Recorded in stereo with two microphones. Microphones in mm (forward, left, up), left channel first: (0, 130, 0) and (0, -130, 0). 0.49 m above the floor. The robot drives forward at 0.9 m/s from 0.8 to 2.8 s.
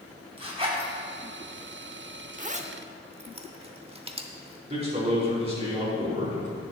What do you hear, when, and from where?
0.4 s a zipper: 20° right (ahead or behind), 2.5 m
2.4 s a zipper: 30° right (ahead or behind), 0.6 m; by 4.6 s 20° right (ahead or behind), 0.9 m
4.7 s a man speaking: 25° right (ahead or behind), 4.5 m